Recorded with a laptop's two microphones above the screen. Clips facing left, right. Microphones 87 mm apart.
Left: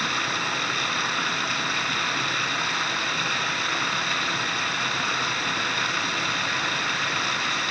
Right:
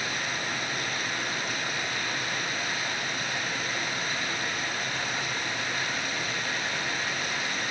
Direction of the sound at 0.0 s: 70° left (ahead or behind).